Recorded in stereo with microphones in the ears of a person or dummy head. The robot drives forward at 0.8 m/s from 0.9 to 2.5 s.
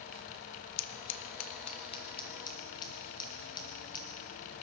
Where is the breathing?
I don't hear breathing.